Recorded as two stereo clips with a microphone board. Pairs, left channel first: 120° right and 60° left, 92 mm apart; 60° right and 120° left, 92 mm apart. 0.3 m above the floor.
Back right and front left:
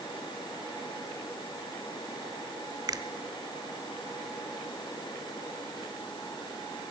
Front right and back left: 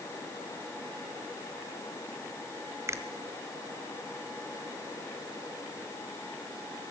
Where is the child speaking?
I don't hear a child speaking.